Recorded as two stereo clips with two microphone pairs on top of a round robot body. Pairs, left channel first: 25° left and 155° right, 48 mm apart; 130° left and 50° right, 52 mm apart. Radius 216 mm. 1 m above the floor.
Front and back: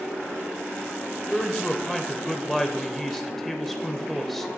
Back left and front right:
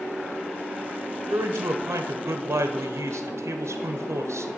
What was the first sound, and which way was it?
A man speaking, 55° right.